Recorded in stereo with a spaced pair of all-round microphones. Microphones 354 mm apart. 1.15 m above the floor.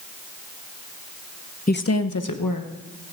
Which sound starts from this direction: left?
A woman speaking, at 1.7 s.